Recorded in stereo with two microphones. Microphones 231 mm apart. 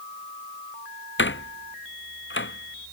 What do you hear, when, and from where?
1.2 s a door slam: 55° left (ahead or behind)